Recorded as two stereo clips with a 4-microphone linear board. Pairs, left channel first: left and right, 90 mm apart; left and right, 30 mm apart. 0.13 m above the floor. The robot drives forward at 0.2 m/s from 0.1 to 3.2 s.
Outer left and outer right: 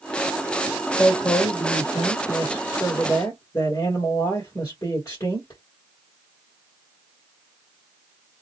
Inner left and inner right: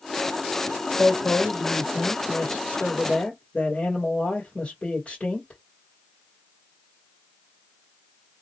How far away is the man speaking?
About 2.0 m.